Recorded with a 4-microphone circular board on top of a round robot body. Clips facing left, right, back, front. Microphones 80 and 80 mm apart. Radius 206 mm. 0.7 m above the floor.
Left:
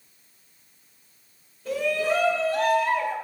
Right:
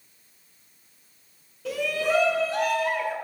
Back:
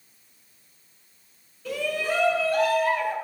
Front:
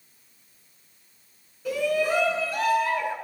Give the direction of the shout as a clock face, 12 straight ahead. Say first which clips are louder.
Left 1 dB, front 4 dB; 3 o'clock.